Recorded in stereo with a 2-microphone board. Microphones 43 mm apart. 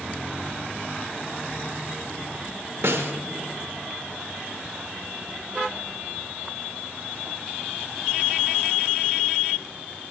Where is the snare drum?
80° right, 1.2 m.